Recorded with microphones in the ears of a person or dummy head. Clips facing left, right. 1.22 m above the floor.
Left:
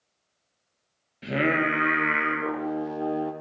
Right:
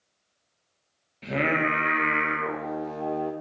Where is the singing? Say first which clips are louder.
Left 1 dB; 10° left (ahead or behind), 0.8 m.